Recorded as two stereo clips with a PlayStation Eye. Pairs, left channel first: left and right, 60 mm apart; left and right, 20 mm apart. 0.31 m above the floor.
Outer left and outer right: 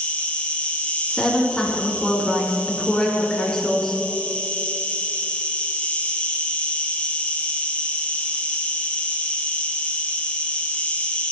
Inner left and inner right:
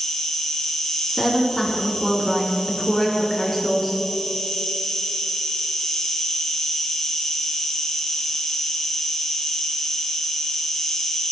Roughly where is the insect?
Left.